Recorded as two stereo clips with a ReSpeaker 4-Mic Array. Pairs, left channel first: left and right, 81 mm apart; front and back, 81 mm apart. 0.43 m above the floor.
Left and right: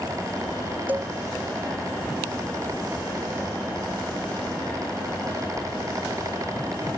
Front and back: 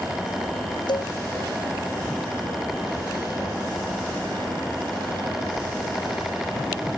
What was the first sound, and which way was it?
A cowbell, 20° right.